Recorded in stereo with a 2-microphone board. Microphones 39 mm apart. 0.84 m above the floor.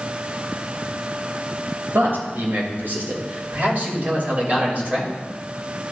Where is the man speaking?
65° right (ahead or behind), 3.5 m; by 5.1 s 35° right (ahead or behind), 3.5 m.